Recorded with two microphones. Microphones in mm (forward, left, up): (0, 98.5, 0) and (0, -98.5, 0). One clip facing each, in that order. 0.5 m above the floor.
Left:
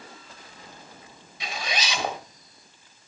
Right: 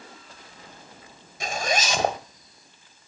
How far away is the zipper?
About 1.4 m.